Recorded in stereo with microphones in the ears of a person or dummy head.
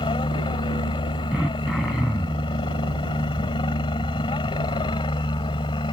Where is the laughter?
No laughter in this recording.